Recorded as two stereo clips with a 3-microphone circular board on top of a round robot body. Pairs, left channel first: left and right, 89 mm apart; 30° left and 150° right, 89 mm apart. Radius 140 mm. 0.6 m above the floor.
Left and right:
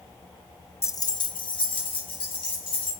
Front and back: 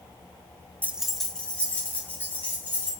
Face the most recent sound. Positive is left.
turn(degrees=100)